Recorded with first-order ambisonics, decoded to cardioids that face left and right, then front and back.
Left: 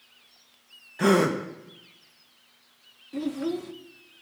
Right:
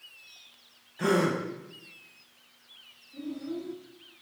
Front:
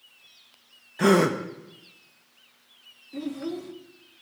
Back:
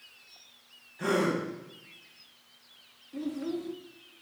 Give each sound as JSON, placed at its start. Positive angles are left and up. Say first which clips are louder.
{"t": 1.0, "sound": "a gasp", "louder": "left 4 dB, front 7 dB", "azimuth_deg": 30, "distance_m": 0.7}
{"t": 3.1, "sound": "a child speaking", "louder": "left 7 dB, front 2 dB", "azimuth_deg": 75, "distance_m": 0.6}